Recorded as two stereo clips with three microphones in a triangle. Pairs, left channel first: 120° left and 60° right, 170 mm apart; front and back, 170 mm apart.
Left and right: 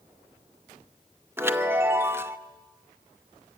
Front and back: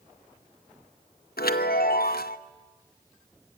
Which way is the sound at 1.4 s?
15° left.